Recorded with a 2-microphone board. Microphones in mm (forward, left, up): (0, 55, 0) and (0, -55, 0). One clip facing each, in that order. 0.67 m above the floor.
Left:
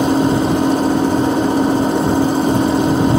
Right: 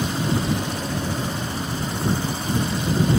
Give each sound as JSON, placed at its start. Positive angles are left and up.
{"t": 0.0, "sound": "an engine running", "side_deg": 65}